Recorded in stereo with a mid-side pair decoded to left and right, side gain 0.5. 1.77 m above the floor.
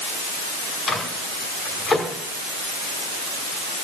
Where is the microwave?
40° left, 5.5 m.